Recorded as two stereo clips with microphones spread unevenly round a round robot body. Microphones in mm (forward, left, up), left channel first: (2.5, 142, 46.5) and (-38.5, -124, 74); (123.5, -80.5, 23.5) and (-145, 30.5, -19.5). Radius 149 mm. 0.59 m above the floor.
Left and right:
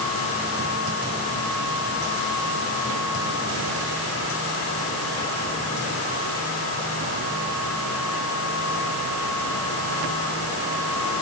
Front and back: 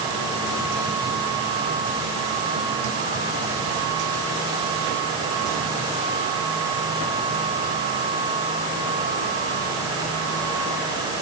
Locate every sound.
Only background noise.